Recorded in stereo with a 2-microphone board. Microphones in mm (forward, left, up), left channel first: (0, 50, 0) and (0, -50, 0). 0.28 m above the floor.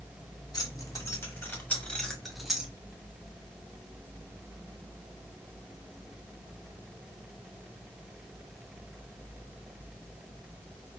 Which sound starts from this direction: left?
Keys jangling, at 0.5 s.